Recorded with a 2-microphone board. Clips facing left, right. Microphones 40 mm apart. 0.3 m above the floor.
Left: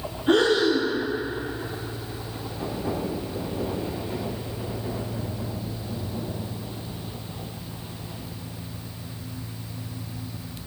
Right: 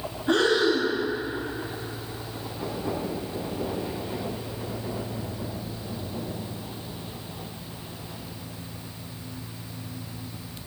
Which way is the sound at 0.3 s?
65° left (ahead or behind).